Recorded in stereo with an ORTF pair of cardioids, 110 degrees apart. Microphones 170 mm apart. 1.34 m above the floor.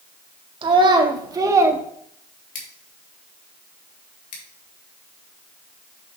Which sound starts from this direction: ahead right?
A child speaking, at 0.6 s.